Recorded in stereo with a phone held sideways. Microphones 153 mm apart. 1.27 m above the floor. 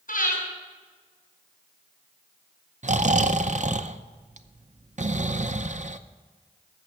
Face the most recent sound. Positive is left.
turn(degrees=-55)  # may be behind; listen again after turning